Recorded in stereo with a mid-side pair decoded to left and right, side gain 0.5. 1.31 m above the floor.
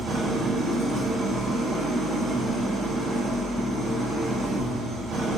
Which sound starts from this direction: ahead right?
An engine running, at 0.0 s.